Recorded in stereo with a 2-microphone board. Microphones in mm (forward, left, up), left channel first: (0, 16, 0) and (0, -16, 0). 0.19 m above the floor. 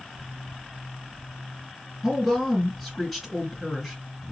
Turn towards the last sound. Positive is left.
turn(degrees=0)  # may be behind; listen again after turning